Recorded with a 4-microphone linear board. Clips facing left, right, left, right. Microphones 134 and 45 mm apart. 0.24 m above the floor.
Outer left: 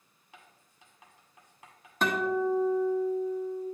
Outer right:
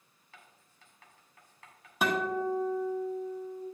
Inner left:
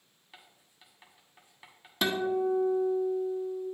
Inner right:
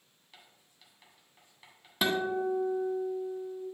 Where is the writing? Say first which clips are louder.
Outer left 2 dB, inner left 3 dB; 20° left (ahead or behind), 1.5 m.